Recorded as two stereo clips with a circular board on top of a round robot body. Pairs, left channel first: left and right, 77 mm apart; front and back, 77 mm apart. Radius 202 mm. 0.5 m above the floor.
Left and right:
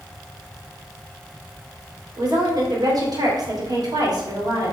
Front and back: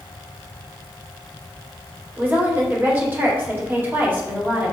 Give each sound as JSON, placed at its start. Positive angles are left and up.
{"t": 2.2, "sound": "a woman speaking", "azimuth_deg": -120, "distance_m": 3.0}